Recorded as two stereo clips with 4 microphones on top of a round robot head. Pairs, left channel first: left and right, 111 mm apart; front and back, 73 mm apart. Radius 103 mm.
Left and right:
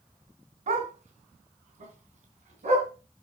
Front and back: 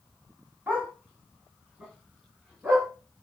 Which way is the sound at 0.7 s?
105° right.